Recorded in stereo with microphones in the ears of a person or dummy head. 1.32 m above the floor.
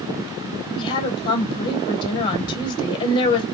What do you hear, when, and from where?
0.8 s a woman speaking: 30° left (ahead or behind), 1.5 m